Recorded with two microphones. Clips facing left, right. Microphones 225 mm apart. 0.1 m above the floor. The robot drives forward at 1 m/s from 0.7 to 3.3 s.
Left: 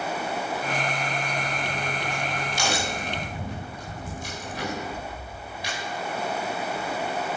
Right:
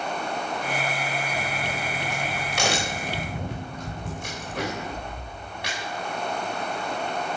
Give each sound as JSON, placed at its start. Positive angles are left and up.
{"t": 1.4, "sound": "a crack", "side_deg": -80, "distance_m": 7.5}